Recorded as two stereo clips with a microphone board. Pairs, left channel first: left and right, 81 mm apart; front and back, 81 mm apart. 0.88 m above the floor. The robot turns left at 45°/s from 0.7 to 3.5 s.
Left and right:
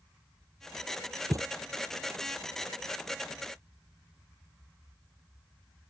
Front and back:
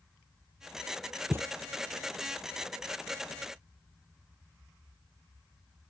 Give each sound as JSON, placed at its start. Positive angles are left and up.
{"t": 1.3, "sound": "a thud", "azimuth_deg": -120}